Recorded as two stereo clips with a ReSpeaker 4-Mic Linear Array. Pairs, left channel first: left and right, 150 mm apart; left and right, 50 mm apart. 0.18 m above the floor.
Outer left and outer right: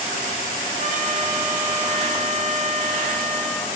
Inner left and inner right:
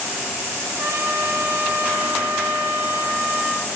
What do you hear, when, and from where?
0.8 s a trumpet: 55° right (ahead or behind), 3 m